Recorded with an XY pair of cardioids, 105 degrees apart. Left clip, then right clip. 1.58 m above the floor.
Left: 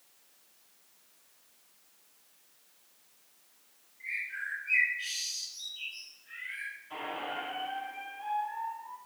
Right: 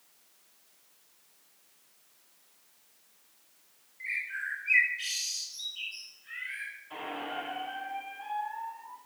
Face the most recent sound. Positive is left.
turn(degrees=-5)